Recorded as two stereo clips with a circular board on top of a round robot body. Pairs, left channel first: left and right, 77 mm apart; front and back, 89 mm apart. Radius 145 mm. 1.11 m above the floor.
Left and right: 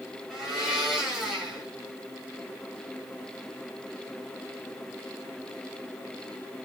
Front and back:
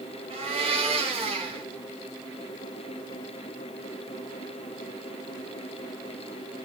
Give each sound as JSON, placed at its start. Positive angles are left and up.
{"t": 0.3, "sound": "a blender", "azimuth_deg": -175, "distance_m": 1.7}